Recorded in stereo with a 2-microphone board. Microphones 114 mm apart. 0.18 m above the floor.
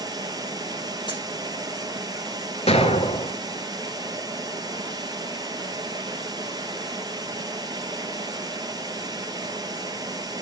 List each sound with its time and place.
0.0 s running water: 35° right (ahead or behind), 1.4 m
1.1 s a dropped coin: 40° left (ahead or behind), 2.5 m
2.7 s an explosion: 65° left (ahead or behind), 0.9 m